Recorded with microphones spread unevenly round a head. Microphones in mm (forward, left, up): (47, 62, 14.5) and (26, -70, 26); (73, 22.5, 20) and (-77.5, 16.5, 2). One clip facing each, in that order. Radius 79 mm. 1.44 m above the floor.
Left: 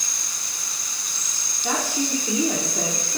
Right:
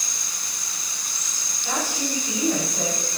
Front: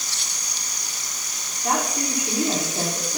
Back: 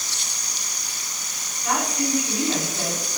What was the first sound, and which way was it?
A woman speaking, 65° left.